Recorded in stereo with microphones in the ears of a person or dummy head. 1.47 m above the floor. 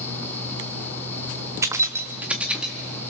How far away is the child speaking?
I don't hear a child speaking.